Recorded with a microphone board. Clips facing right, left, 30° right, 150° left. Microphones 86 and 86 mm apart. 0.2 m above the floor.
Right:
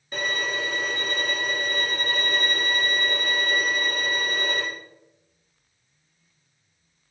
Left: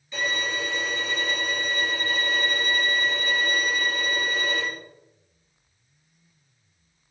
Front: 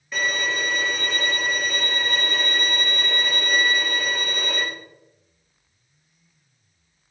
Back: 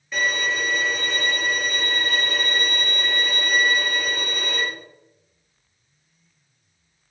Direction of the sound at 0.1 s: 120° right.